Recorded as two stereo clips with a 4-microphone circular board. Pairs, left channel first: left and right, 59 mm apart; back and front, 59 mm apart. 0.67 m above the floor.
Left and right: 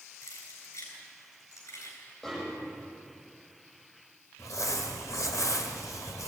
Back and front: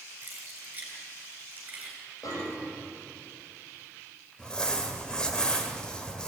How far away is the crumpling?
About 2 m.